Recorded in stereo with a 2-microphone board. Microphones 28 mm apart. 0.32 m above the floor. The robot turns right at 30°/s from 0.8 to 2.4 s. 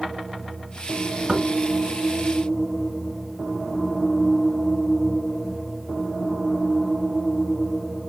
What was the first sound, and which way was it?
Knocking, 30° right (ahead or behind).